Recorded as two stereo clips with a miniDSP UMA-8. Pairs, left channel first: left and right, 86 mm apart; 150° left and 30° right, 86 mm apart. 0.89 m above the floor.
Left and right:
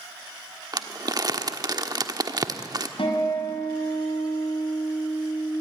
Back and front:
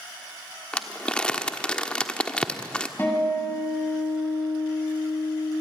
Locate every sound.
0.7 s crumpling: 135° right, 1.2 m
3.0 s a guitar: 85° left, 7.5 m